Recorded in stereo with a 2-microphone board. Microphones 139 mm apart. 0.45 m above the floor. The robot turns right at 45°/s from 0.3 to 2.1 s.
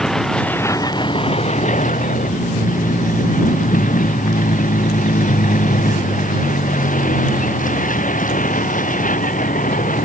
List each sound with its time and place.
0.0 s a vehicle: 5° left; by 10.1 s 85° left